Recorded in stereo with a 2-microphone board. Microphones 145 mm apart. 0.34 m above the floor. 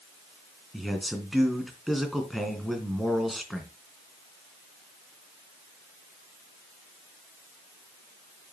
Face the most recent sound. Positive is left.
turn(degrees=0)  # may be behind; listen again after turning